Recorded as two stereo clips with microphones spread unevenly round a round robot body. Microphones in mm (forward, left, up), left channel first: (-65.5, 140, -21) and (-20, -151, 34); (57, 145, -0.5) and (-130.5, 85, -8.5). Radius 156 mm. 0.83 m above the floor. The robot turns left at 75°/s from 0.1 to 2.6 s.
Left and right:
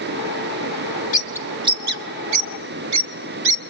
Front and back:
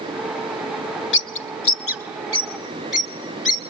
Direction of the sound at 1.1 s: 35° left.